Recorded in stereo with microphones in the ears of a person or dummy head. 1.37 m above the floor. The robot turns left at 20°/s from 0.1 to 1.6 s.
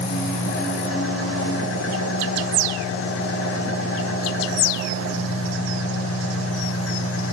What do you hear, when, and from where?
0.0 s an engine running: 130° left, 3 m; by 7.3 s 100° left, 3 m